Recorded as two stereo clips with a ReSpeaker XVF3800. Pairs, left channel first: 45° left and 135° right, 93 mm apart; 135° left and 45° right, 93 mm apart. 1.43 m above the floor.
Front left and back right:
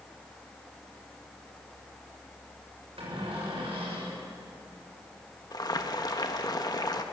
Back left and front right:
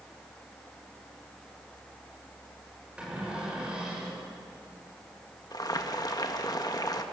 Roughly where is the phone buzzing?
No phone buzzing in this recording.